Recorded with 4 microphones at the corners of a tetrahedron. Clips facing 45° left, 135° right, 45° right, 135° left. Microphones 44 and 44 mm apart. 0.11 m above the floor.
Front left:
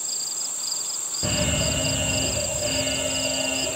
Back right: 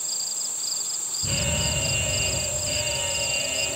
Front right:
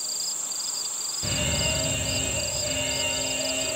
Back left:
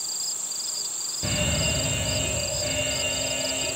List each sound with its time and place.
1.2 s an alarm: 60° left, 5 m